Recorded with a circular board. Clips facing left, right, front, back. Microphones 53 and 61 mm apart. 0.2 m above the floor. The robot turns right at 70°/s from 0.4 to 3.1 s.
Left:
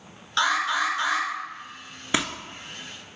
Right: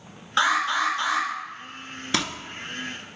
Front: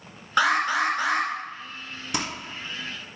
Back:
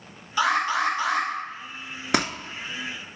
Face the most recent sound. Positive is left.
turn(degrees=-130)